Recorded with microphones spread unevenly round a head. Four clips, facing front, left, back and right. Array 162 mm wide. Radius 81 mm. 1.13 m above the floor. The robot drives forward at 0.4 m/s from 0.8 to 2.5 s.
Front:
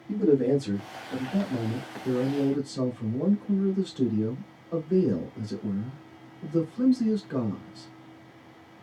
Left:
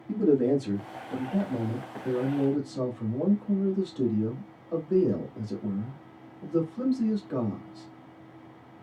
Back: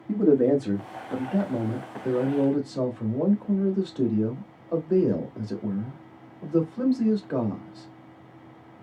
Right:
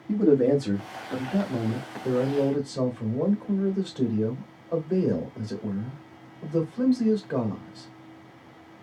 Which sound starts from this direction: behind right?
A man speaking, at 0.1 s.